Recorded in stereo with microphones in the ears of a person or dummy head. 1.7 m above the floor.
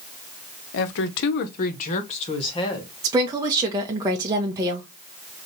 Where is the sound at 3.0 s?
25° right (ahead or behind), 0.9 m.